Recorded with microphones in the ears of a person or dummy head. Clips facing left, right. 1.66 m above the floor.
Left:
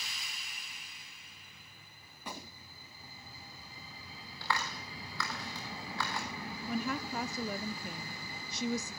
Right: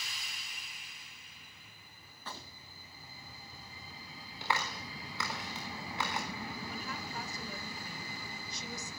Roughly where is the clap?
Centre.